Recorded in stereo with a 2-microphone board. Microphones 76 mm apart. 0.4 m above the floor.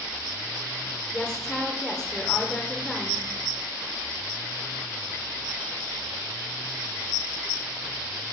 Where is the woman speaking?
5° left (ahead or behind), 0.9 m.